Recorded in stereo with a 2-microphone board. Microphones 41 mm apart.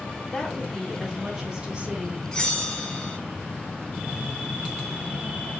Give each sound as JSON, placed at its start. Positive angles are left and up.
{"t": 0.3, "sound": "a woman speaking", "side_deg": 20, "distance_m": 3.0}
{"t": 2.3, "sound": "a bell", "side_deg": 15, "distance_m": 1.9}